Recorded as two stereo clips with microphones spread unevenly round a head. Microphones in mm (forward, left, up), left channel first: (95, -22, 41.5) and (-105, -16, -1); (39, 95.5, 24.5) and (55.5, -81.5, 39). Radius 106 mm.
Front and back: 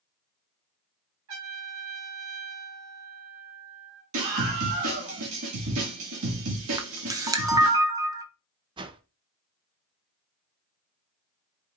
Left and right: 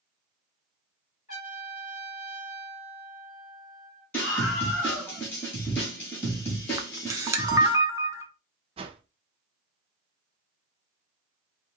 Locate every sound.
1.3 s a trumpet: 160° left, 3 m
4.1 s a scream: straight behind, 1.5 m
6.8 s a camera shutter: 105° right, 0.5 m
8.8 s a whoosh: 115° right, 0.5 m